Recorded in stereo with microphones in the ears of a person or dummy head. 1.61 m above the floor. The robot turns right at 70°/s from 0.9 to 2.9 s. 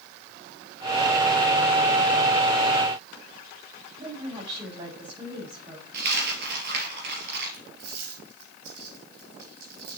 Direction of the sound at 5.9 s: 60° right (ahead or behind).